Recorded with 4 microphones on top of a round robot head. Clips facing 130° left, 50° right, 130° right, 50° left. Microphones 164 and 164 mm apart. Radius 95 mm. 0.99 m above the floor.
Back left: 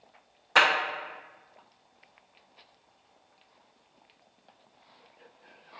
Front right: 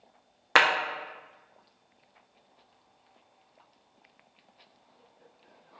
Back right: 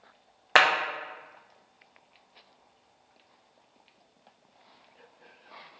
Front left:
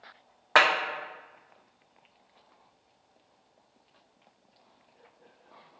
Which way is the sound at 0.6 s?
70° right.